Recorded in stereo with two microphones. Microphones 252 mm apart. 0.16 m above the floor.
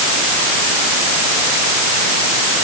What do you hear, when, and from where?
Only background noise.